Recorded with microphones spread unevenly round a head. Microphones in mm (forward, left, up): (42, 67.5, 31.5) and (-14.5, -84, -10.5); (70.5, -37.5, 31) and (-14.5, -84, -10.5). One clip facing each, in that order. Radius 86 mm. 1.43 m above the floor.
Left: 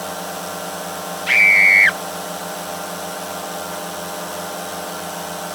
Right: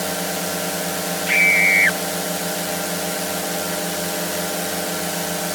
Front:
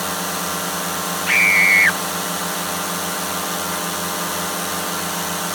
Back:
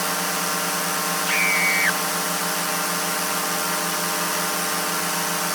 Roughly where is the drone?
Ahead right.